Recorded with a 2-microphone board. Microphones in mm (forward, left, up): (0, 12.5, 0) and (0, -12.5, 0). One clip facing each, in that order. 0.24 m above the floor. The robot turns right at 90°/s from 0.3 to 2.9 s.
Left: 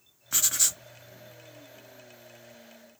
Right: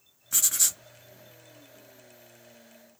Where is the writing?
130° left, 0.5 m; by 0.8 s 175° left, 0.5 m.